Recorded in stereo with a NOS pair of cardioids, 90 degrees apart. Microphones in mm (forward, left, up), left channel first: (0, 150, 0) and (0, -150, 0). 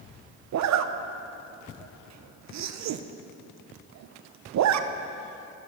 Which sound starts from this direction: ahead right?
A zipper, at 0.5 s.